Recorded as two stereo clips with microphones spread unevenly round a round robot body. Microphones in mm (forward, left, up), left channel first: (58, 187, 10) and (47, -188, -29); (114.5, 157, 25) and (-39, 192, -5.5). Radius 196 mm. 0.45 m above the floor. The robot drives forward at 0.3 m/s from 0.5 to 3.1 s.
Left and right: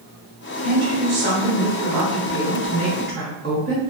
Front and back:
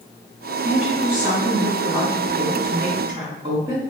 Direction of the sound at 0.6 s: 120° right.